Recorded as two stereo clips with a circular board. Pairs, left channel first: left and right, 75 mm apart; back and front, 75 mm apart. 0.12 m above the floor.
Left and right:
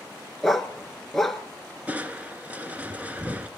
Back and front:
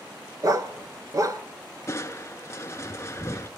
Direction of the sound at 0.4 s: 5° left.